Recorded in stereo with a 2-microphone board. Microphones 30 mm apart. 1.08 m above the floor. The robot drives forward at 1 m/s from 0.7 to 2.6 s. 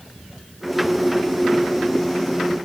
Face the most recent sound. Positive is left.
No sound to turn to.